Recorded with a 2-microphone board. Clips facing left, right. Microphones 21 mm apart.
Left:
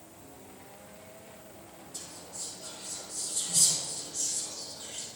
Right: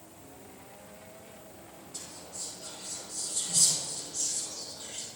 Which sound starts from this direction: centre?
Whispering, at 1.9 s.